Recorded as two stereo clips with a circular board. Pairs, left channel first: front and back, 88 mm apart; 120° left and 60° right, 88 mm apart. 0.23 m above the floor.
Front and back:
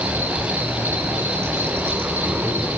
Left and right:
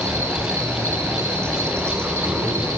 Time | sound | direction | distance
0.0 | an insect | 115° right | 7 m